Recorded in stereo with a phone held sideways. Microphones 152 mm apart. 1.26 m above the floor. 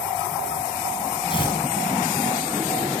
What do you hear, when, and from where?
1.3 s tearing paper: 35° left (ahead or behind), 6 m